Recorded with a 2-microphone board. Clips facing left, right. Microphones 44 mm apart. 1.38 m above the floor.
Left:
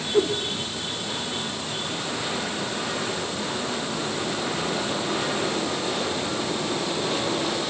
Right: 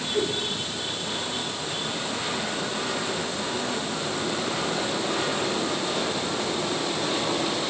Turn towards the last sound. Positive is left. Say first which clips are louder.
# left 5 dB
turn(degrees=40)  # may be behind; listen again after turning